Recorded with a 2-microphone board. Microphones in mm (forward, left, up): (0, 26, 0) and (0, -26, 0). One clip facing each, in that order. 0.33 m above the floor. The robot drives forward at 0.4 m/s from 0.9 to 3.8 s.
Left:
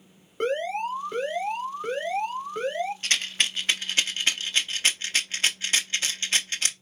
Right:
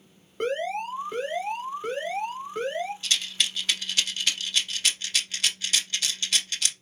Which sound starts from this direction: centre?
An alarm, at 0.4 s.